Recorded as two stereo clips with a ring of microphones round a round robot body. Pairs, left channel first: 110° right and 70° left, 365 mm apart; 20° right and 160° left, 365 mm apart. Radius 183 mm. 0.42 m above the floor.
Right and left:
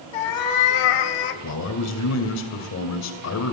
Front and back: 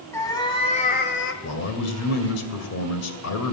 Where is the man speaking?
70° right, 2 m.